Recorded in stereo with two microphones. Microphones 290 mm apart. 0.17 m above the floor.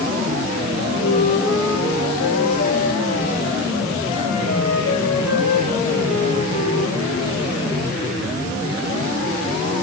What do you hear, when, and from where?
0.8 s a flute: 55° left (ahead or behind), 5.5 m